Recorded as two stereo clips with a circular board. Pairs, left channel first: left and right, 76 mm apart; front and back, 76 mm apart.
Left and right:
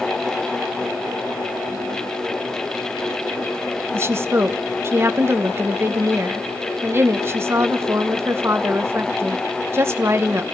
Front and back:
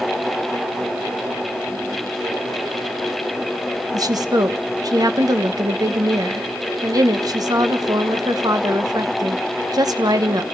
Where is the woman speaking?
145° right, 1.1 m.